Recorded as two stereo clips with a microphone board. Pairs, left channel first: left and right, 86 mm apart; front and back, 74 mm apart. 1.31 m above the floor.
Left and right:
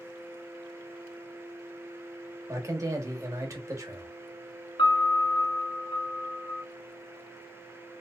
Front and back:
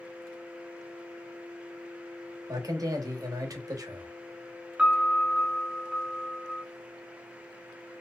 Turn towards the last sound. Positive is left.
turn(degrees=105)